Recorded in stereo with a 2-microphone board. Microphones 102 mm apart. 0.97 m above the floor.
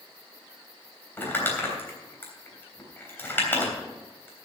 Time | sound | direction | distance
1.2 | crumpling | 20° left (ahead or behind) | 3.5 m